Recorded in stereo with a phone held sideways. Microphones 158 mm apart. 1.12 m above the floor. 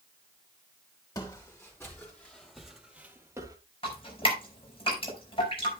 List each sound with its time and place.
1.1 s footsteps: 20° left (ahead or behind), 3 m; by 3.6 s 25° right (ahead or behind), 1.7 m
3.8 s dripping: 35° left (ahead or behind), 5.5 m